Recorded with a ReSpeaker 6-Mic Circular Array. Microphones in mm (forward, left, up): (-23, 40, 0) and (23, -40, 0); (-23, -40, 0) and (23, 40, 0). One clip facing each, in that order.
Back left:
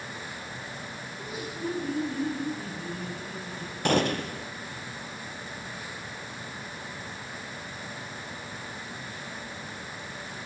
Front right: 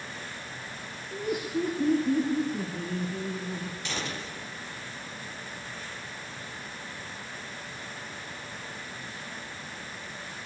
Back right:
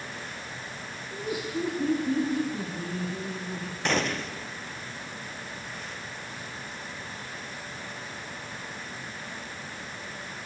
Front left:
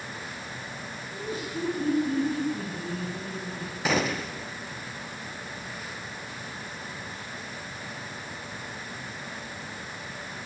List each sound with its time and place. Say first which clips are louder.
1.1 s laughter: front right 10 dB, back right 3 dB; 45° right, 6.5 m
3.9 s a gunshot: back left 16 dB, front left 1 dB; 145° left, 1.6 m